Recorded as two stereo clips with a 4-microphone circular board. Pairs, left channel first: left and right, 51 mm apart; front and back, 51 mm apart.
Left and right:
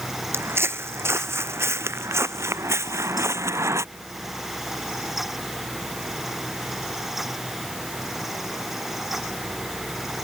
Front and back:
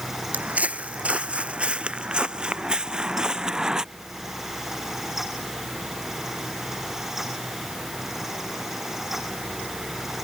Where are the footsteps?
120° right; by 3.8 s 105° right.